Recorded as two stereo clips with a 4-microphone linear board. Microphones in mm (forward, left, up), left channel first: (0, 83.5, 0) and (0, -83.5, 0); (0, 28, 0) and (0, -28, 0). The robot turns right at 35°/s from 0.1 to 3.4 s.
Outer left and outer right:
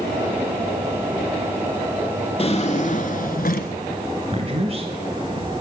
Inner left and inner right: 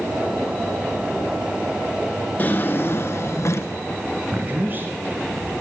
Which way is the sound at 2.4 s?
40° left.